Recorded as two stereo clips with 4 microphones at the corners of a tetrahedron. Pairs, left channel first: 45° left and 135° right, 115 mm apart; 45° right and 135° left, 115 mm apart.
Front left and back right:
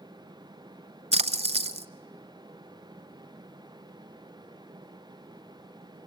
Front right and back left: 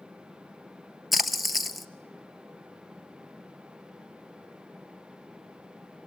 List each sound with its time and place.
1.1 s a splash: 135° right, 0.9 m